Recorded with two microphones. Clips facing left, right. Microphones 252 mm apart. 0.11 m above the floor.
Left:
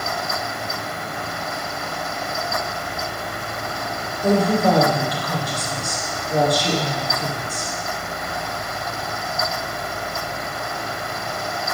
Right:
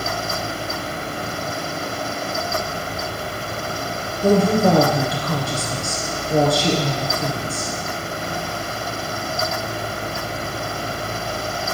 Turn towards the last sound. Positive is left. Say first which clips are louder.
# right 2 dB
turn(degrees=-30)  # may be behind; listen again after turning